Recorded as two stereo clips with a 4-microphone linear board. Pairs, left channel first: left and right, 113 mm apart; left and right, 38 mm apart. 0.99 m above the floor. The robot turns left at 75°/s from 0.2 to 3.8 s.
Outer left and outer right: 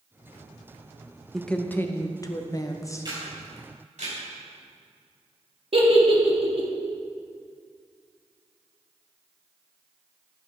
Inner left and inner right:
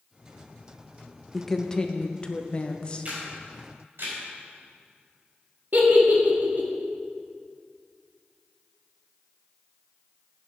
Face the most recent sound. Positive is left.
turn(degrees=-50)  # may be behind; listen again after turning